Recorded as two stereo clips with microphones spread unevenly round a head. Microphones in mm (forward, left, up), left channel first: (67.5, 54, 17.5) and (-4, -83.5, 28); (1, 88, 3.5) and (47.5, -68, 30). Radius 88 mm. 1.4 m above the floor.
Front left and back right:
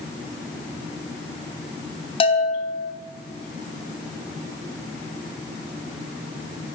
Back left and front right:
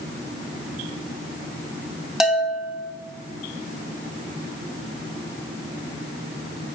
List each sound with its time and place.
2.2 s a bell: 10° left, 3 m